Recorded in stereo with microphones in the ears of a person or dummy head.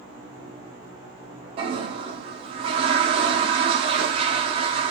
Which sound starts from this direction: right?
A toilet flushing, at 1.6 s.